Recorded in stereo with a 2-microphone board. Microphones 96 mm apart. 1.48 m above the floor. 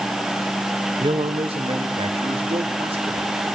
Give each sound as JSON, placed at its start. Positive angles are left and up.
{"t": 1.0, "sound": "a man speaking", "side_deg": -65, "distance_m": 1.8}